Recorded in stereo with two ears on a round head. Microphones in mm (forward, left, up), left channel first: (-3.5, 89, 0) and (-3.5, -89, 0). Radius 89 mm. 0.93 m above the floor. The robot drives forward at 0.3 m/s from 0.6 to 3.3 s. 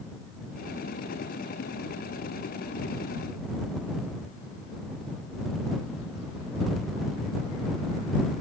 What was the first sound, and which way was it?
Only background noise.